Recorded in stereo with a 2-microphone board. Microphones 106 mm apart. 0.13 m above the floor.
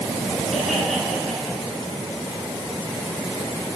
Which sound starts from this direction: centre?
Laughter, at 0.5 s.